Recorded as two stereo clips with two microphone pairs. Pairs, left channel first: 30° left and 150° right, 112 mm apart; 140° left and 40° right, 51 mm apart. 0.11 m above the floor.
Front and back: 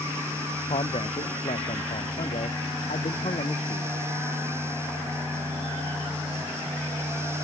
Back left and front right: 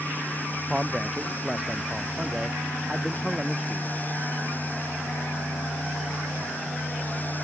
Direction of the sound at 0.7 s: 40° left.